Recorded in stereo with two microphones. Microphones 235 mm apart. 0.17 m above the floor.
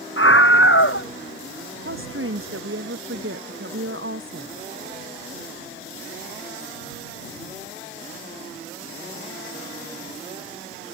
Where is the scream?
60° left (ahead or behind).